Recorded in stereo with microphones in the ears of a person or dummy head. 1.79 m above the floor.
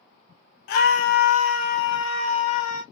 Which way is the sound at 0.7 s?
50° left (ahead or behind).